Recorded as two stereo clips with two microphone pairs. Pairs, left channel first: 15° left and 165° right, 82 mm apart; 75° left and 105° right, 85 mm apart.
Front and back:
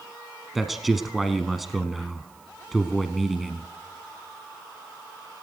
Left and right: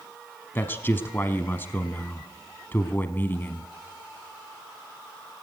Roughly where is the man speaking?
Left.